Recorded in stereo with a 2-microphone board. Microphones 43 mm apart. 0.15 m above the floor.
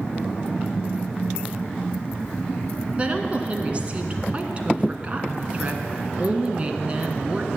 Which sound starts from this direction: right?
A woman speaking, at 3.0 s.